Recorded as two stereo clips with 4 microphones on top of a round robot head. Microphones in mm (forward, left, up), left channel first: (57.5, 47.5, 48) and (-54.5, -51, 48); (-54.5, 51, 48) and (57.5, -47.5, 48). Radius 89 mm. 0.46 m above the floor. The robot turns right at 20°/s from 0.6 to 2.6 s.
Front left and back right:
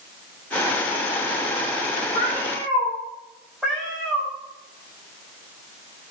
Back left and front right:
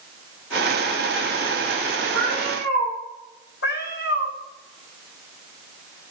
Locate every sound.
2.1 s a cat meowing: 90° left, 6.5 m; by 2.9 s 100° left, 6.5 m
3.6 s a cat meowing: 135° left, 4 m